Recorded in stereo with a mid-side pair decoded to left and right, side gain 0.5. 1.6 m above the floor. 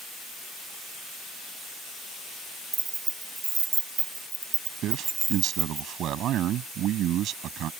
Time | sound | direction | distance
2.7 | keys jangling | 30° right | ?
4.8 | a man speaking | 65° right | ?